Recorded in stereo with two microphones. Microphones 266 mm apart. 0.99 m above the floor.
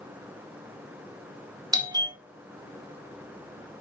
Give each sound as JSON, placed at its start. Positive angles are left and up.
{"t": 1.7, "sound": "a doorbell", "side_deg": -15, "distance_m": 1.8}